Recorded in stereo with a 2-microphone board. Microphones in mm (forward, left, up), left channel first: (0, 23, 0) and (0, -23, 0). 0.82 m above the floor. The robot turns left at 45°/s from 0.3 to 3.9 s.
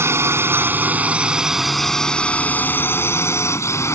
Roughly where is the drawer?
I don't hear a drawer.